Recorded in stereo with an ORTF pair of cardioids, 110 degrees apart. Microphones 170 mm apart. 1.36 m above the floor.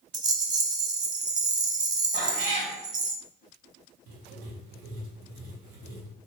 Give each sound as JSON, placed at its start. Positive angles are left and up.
{"t": 0.1, "sound": "a rattle", "azimuth_deg": -25, "distance_m": 0.5}
{"t": 2.1, "sound": "a cat meowing", "azimuth_deg": -60, "distance_m": 1.9}
{"t": 4.1, "sound": "writing", "azimuth_deg": -70, "distance_m": 1.1}